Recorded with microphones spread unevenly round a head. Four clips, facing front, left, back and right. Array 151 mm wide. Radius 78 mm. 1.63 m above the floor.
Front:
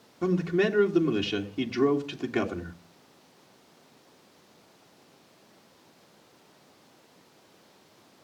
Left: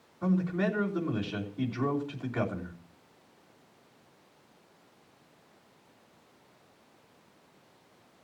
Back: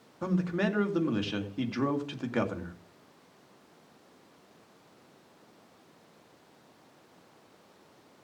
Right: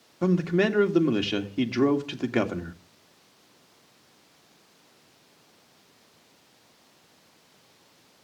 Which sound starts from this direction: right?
A man speaking, at 0.2 s.